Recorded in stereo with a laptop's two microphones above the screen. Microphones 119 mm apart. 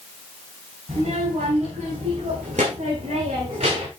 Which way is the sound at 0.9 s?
80° right.